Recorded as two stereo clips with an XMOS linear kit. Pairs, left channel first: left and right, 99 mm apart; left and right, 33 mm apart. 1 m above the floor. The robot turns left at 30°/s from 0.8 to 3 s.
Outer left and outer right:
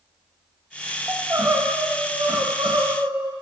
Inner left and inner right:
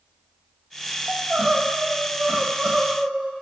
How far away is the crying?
About 1.3 m.